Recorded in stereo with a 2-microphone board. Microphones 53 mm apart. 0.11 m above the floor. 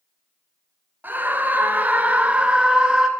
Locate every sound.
1.0 s a scream: 35° right (ahead or behind), 1.6 m; by 3.1 s 15° right (ahead or behind), 1.2 m